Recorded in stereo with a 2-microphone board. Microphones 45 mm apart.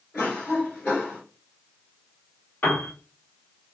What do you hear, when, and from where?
0.1 s a cough: 35° left (ahead or behind), 2.0 m
2.6 s a piano: 35° left (ahead or behind), 1.3 m